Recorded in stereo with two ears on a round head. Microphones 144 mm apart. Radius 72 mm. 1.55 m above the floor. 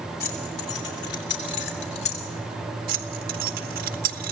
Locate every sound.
0.2 s keys jangling: 70° left (ahead or behind), 3.5 m; by 2.3 s 65° left (ahead or behind), 3.5 m
2.9 s keys jangling: 60° right (ahead or behind), 1.8 m